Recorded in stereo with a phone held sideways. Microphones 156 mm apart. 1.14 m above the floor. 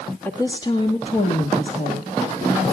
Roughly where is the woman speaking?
Centre.